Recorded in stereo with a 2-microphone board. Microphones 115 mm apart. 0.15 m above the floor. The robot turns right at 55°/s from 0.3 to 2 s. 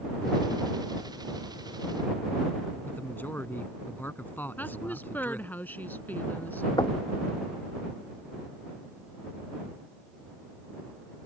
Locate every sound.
2.9 s a man speaking: 15° left (ahead or behind)
4.6 s a woman speaking: 15° left (ahead or behind)
6.8 s knocking: 40° left (ahead or behind)